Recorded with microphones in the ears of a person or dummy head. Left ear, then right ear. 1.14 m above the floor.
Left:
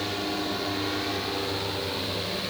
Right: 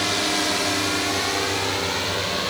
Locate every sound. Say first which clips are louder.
0.0 s a drone: right 8 dB; 50° right (ahead or behind)